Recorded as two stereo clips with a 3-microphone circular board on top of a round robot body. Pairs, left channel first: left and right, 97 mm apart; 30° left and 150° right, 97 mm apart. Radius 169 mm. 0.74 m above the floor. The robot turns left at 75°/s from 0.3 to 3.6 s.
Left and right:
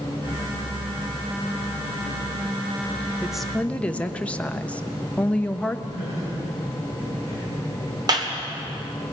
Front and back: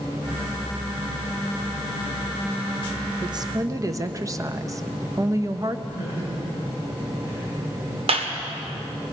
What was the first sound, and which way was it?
A woman speaking, 165° right.